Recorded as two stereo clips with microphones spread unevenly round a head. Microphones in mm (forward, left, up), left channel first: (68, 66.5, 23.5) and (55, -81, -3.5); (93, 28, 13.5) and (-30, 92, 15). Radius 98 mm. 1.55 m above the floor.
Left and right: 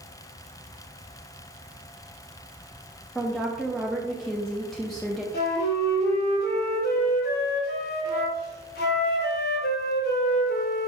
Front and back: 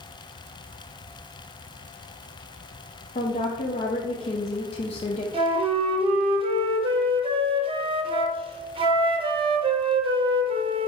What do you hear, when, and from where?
3.1 s a woman speaking: 5° left, 0.6 m
5.3 s a flute: 105° left, 0.8 m